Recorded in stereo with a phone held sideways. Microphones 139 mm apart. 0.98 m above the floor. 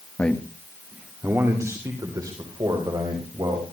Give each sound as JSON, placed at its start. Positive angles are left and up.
{"t": 0.2, "sound": "a man speaking", "side_deg": 15, "distance_m": 1.2}